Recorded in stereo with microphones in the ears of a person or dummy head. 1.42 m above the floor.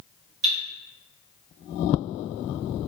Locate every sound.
0.4 s cutlery clinking: 65° right (ahead or behind), 1.5 m